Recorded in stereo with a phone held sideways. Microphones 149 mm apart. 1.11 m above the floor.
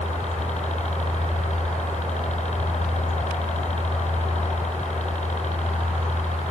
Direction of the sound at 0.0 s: 50° left (ahead or behind).